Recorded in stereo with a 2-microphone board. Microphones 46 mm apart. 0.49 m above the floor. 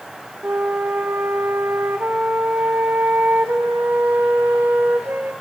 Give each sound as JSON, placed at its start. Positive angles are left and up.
{"t": 0.4, "sound": "a flute", "side_deg": -50, "distance_m": 1.2}